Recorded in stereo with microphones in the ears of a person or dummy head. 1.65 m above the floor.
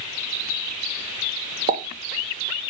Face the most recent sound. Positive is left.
turn(degrees=-45)  # may be behind; listen again after turning